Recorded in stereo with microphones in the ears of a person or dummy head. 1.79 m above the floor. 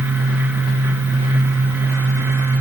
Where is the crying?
I don't hear crying.